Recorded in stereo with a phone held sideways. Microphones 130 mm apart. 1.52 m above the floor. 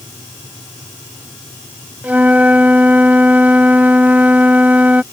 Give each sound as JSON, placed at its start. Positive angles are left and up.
{"t": 2.0, "sound": "a flute", "side_deg": -10}